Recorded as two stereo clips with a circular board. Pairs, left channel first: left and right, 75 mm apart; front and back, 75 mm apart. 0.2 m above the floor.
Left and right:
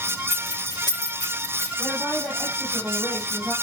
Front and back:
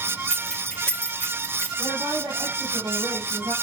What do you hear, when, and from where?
0.3 s keys jangling: 80° left, 4 m; by 1.7 s 65° left, 5 m
1.8 s a woman speaking: 175° left, 8 m